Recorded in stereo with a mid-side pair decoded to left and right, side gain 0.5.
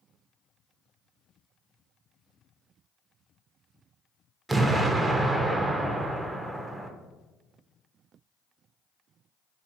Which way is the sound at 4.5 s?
20° right.